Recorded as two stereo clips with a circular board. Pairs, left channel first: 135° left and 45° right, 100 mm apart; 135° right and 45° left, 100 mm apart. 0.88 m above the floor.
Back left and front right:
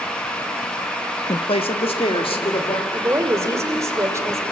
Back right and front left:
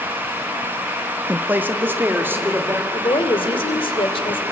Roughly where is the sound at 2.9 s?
Right.